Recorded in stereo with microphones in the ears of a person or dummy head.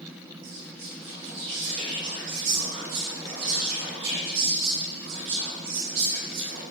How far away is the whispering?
About 1.9 m.